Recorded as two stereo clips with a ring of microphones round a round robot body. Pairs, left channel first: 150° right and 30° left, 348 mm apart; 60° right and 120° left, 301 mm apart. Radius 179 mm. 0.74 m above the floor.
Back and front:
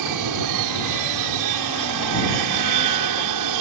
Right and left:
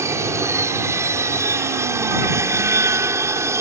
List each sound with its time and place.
0.0 s an aircraft: 40° left